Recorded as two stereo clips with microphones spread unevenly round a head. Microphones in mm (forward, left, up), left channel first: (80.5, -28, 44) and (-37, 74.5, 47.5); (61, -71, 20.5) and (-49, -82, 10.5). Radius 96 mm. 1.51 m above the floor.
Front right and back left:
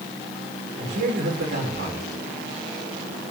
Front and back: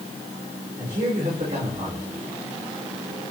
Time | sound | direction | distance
0.8 | a man speaking | 130° left | 6 m